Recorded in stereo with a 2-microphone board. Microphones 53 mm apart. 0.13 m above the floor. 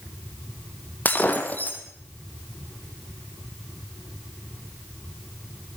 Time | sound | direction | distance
1.1 | breaking glass | 30° left (ahead or behind) | 2.5 m